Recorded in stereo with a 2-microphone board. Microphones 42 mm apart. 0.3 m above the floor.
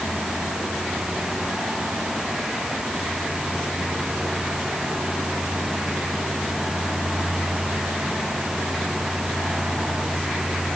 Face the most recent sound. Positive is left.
No sound to turn to.